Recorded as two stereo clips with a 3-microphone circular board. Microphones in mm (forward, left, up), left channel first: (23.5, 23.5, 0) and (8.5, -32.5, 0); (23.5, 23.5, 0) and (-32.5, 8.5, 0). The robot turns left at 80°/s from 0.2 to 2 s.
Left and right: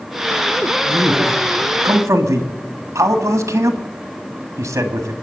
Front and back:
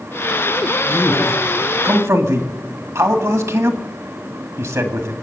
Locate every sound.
0.8 s a man speaking: 45° right, 1.8 m; by 5.1 s 135° right, 1.8 m